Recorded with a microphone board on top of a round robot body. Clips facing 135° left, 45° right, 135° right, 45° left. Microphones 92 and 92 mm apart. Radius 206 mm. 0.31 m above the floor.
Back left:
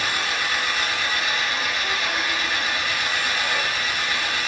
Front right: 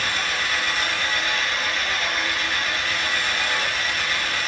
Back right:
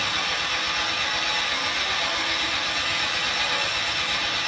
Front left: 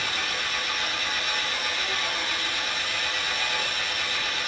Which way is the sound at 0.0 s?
145° right.